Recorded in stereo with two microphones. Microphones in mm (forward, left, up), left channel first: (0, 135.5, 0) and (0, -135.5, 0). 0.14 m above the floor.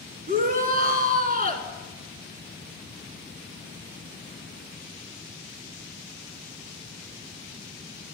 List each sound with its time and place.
0.3 s a shout: 30° right (ahead or behind), 1.6 m